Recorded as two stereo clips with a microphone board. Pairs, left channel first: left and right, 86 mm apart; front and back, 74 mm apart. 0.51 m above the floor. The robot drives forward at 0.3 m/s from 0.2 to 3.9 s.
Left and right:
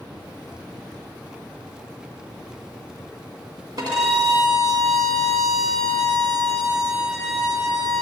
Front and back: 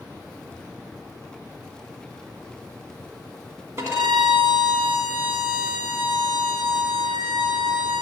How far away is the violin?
About 1.8 m.